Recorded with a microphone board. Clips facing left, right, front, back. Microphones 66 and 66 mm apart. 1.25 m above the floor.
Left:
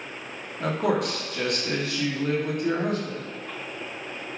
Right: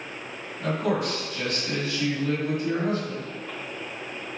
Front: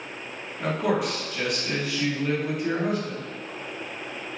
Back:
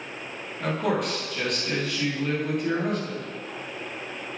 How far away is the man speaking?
About 1.2 m.